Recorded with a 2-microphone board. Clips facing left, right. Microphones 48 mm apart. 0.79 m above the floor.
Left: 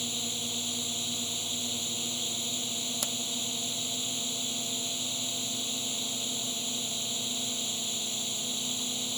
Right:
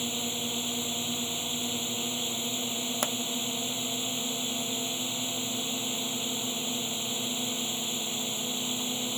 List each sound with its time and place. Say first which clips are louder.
0.0 s a drone: right 3 dB; 25° right (ahead or behind)
3.0 s a pop: right 8 dB; 35° right (ahead or behind)